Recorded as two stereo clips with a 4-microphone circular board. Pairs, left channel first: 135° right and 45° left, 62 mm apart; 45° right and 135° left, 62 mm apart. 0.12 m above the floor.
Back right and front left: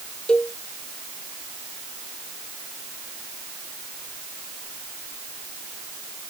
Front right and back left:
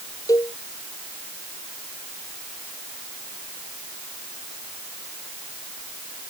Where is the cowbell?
60° right.